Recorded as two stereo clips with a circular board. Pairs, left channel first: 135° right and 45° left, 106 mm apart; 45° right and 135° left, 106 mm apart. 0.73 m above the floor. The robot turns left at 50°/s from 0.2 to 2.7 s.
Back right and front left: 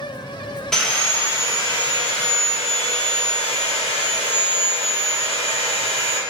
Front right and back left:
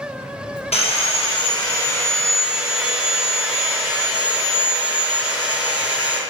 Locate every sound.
0.7 s sawing: 50° right, 0.9 m; by 6.2 s 150° right, 0.9 m